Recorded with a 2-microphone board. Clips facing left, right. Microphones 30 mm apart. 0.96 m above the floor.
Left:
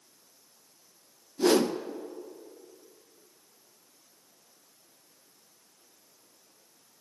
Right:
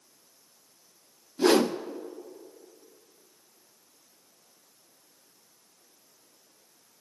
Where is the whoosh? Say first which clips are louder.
Right 2 dB; 25° right (ahead or behind), 0.6 m.